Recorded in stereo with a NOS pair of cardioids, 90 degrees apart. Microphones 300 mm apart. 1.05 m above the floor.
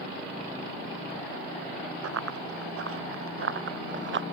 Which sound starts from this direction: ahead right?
Running footsteps, at 2.0 s.